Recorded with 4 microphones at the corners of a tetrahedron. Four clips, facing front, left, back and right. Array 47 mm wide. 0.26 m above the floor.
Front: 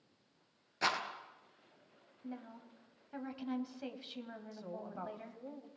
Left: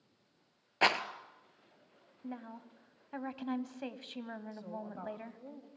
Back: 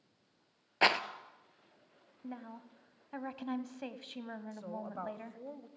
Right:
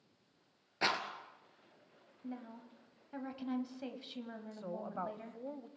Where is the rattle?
145° left, 1.1 m.